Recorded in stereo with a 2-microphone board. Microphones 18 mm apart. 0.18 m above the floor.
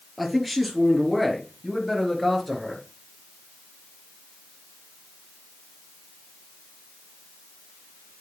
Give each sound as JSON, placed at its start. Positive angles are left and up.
{"t": 0.2, "sound": "a man speaking", "side_deg": 5, "distance_m": 3.5}